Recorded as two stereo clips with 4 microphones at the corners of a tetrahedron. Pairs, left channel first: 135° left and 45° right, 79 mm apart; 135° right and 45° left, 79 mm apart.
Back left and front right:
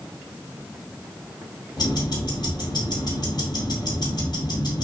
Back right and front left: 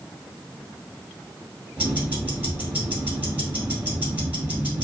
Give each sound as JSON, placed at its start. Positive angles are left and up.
{"t": 1.8, "sound": "ticking", "azimuth_deg": 115, "distance_m": 1.5}